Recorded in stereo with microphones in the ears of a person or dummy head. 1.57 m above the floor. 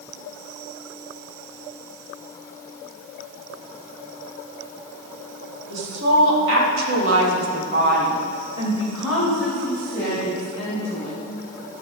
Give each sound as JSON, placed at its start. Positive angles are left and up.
{"t": 5.7, "sound": "a woman speaking", "side_deg": -70, "distance_m": 4.0}